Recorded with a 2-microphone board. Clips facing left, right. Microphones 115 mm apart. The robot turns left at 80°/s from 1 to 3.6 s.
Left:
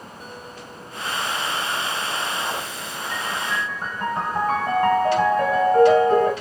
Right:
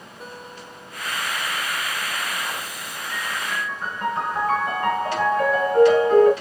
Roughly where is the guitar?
Behind right.